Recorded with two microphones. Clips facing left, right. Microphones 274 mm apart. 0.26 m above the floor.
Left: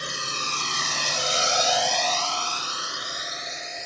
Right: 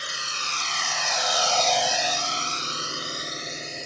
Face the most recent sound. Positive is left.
turn(degrees=-35)  # may be behind; listen again after turning